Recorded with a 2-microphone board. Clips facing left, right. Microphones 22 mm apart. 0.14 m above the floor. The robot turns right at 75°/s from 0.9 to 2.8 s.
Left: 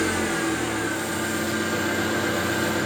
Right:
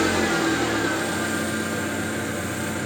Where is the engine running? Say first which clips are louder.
Right 3 dB; 35° right, 3.5 m; by 2.9 s 105° left, 3.5 m.